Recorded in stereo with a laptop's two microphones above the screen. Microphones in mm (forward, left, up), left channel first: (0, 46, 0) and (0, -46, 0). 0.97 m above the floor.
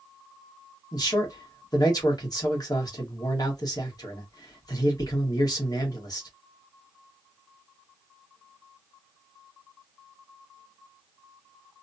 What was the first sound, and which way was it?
A man speaking, 45° left (ahead or behind).